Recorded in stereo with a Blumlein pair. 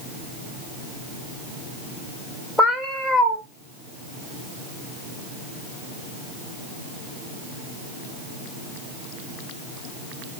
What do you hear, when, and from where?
2.6 s a cat meowing: 5° left, 1.2 m